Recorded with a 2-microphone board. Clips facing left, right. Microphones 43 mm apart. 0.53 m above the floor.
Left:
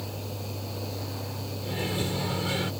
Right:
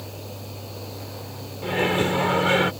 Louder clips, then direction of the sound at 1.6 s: Right 10 dB; 55° right (ahead or behind).